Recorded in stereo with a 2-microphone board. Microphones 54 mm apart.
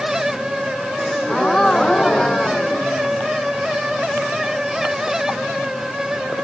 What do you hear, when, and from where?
1.0 s a gasp: 10° left (ahead or behind)